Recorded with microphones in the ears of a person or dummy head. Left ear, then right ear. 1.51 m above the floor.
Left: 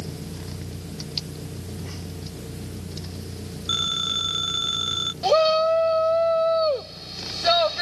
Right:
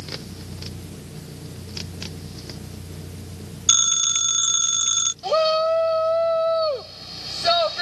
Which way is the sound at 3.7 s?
75° right (ahead or behind).